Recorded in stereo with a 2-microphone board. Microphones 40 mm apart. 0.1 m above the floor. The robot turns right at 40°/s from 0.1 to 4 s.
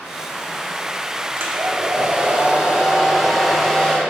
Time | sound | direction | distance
1.4 | a hair dryer | 80° right | 1.3 m